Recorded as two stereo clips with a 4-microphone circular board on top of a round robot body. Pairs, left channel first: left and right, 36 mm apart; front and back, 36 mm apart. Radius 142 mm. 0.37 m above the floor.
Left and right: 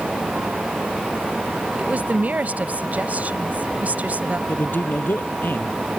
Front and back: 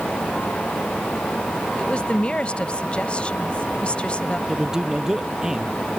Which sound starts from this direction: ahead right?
A woman speaking, at 1.8 s.